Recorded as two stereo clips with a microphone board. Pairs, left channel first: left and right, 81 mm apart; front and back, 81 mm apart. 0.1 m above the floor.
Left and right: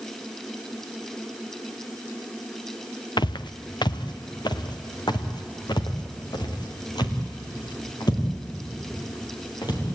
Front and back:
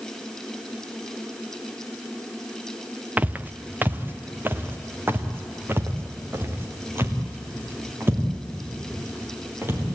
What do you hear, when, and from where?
3.2 s footsteps: 110° left, 0.8 m; by 9.8 s 120° left, 5.5 m